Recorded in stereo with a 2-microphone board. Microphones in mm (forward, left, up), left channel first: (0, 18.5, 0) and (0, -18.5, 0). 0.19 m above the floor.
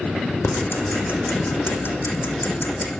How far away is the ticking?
About 4.5 m.